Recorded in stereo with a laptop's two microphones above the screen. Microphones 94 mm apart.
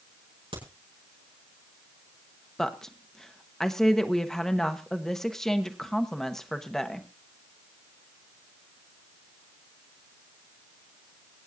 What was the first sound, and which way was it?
A crack, 80° right.